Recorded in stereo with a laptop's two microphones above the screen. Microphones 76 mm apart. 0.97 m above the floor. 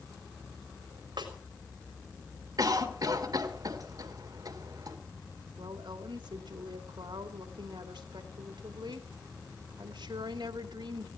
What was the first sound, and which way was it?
A snare drum, 80° right.